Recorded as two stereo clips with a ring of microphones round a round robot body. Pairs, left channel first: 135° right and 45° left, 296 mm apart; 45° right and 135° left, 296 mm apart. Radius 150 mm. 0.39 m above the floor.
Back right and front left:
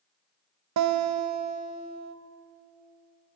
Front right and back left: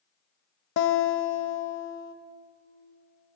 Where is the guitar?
5° left, 0.7 m.